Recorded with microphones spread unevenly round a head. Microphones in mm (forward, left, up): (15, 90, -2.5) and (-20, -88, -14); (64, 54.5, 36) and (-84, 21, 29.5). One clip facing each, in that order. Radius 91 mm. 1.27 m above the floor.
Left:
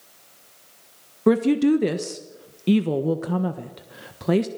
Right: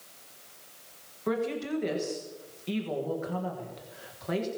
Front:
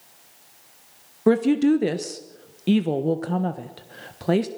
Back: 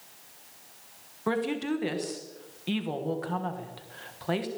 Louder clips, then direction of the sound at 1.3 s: Left 13 dB, front 12 dB; 55° left.